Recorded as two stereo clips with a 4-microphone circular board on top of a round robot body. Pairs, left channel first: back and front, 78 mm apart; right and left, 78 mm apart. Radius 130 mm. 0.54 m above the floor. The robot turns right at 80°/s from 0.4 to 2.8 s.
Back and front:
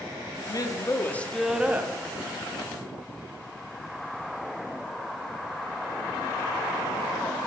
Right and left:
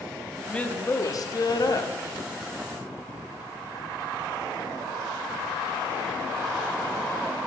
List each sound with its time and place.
0.5 s a woman speaking: 165° right, 1.0 m; by 1.9 s 50° right, 1.0 m